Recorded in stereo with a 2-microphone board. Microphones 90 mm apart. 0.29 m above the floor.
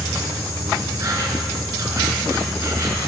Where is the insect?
35° right (ahead or behind), 4 m.